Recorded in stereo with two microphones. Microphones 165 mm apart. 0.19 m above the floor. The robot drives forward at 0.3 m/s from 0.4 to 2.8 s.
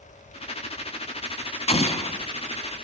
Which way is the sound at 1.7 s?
40° left (ahead or behind).